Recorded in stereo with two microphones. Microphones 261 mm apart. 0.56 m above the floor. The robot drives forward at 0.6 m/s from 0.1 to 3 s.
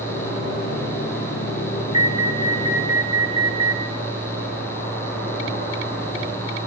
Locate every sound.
1.9 s an alarm: 20° right (ahead or behind), 1.0 m; by 3.8 s 10° right (ahead or behind), 1.5 m